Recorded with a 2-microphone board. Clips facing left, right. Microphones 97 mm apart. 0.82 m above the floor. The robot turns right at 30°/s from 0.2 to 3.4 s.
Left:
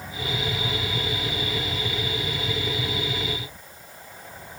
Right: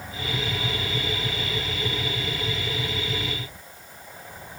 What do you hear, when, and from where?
Only background noise.